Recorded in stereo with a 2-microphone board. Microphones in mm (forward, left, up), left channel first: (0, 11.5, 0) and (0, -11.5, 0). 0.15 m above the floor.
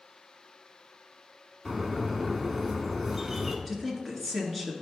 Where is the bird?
5° right (ahead or behind), 1.4 m.